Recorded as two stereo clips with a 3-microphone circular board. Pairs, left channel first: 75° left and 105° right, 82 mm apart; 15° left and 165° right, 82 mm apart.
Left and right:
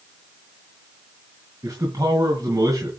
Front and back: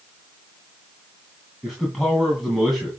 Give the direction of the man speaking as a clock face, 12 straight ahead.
3 o'clock.